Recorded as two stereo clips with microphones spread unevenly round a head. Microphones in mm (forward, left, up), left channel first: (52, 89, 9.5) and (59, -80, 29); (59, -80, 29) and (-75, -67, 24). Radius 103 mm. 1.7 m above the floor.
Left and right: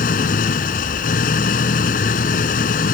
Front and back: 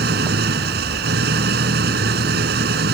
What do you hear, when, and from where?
0.0 s an engine running: 150° left